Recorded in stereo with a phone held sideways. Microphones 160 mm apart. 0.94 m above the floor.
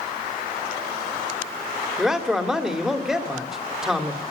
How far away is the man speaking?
About 2.5 m.